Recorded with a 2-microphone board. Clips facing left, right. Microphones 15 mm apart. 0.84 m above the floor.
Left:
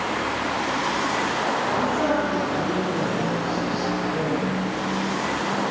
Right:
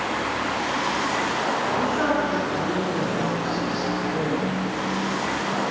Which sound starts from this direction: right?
A man speaking, at 1.8 s.